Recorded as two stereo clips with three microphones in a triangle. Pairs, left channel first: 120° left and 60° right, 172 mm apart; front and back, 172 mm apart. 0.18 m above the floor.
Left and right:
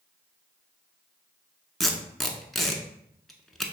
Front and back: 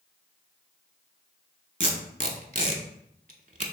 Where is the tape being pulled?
150° right, 0.6 m.